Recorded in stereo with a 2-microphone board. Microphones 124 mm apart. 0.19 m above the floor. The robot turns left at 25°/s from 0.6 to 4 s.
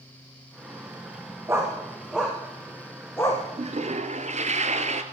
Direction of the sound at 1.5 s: 25° right (ahead or behind).